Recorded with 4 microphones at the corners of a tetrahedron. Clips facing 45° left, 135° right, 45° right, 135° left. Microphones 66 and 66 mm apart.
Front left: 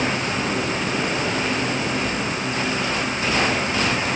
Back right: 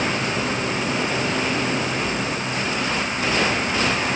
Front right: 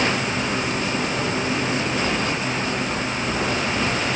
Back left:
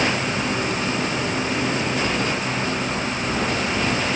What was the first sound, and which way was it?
Only background noise.